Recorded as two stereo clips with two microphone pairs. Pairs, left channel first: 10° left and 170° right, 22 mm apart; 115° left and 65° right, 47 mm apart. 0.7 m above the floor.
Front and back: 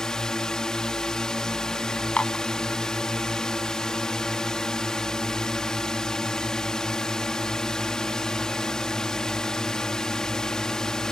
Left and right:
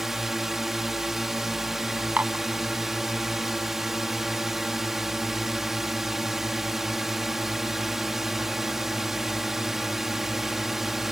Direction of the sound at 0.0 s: 15° left.